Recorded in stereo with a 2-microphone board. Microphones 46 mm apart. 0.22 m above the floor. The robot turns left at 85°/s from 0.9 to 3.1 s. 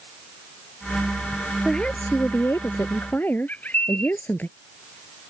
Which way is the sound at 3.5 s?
40° left (ahead or behind).